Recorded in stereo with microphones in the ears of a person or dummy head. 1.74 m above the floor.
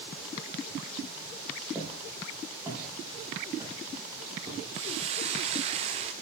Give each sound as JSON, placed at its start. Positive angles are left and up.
{"t": 1.8, "sound": "footsteps", "side_deg": -10, "distance_m": 6.5}
{"t": 4.7, "sound": "a hiss", "side_deg": -35, "distance_m": 1.2}